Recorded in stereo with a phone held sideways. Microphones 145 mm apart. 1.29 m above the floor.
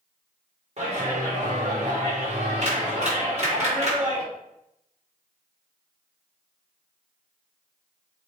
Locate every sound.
0.8 s a clap: 45° right (ahead or behind), 3 m